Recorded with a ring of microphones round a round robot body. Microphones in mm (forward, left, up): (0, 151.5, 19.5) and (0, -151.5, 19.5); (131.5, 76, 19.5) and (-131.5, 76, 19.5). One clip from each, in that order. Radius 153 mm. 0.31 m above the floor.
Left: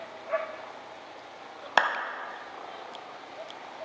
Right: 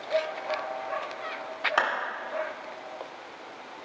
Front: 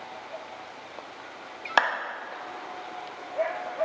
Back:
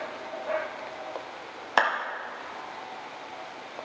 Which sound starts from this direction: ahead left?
A clap, at 1.8 s.